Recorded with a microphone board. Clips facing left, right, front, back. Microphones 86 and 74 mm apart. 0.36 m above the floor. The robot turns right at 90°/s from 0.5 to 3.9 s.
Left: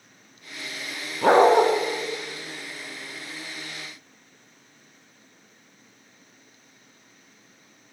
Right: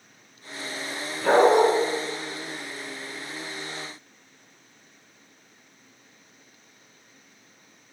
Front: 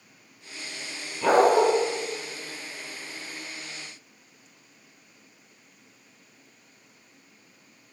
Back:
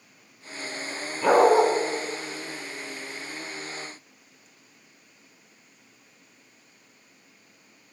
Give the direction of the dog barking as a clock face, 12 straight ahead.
9 o'clock.